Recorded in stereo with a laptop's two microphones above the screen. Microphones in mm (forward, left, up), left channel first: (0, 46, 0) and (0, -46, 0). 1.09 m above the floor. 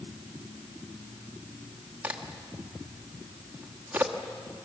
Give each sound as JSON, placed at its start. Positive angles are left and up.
{"t": 2.0, "sound": "a crack", "side_deg": -15, "distance_m": 1.2}